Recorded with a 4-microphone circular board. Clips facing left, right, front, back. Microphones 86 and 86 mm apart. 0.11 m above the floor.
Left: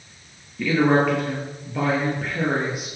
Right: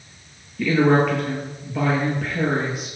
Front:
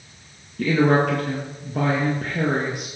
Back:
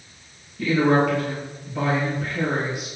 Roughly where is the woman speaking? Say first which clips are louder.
Right 1 dB, front 1 dB; ahead.